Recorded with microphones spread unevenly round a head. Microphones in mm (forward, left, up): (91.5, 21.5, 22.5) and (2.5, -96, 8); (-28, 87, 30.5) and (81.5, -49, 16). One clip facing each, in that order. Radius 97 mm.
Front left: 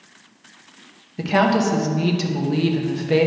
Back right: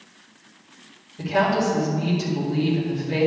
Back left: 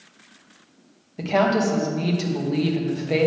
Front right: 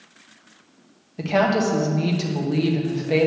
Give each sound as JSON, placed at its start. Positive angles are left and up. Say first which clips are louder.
{"t": 1.2, "sound": "a woman speaking", "louder": "front left 3 dB, even", "azimuth_deg": 40, "distance_m": 1.2}